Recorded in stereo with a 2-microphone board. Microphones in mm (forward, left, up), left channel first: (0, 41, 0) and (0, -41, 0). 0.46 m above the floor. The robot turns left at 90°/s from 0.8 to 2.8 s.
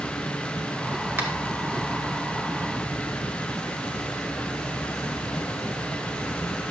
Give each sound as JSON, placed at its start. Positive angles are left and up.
{"t": 1.2, "sound": "a finger snap", "side_deg": -30, "distance_m": 2.0}